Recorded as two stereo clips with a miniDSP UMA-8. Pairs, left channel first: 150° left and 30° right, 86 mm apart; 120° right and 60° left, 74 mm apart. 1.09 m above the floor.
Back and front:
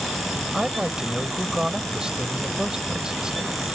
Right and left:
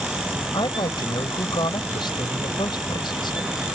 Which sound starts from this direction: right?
A woman speaking, at 0.5 s.